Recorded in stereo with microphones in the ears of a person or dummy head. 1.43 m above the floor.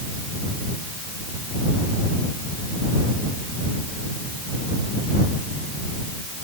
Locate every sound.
Only background noise.